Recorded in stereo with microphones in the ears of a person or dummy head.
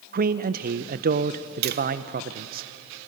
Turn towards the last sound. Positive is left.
turn(degrees=-60)  # may be behind; listen again after turning